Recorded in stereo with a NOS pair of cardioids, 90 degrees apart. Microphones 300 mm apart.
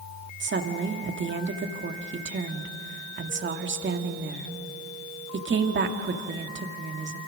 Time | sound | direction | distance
0.4 | a woman speaking | 40° right | 2.0 m